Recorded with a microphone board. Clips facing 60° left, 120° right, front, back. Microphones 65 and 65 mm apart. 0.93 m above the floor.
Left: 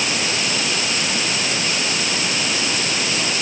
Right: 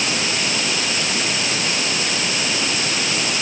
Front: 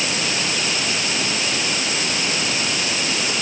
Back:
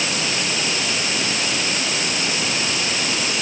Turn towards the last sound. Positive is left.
No sound to turn to.